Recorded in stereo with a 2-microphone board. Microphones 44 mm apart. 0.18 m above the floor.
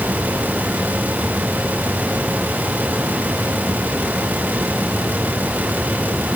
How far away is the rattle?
No rattle in this recording.